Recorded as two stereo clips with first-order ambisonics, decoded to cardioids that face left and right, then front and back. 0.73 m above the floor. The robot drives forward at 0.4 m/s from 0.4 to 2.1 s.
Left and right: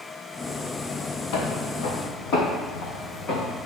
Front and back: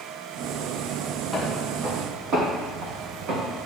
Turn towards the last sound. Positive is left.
turn(degrees=150)